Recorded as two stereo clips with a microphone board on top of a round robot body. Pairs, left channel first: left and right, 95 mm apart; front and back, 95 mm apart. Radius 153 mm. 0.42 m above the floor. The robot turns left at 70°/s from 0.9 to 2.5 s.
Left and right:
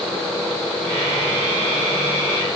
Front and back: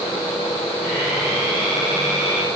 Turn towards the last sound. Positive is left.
No sound to turn to.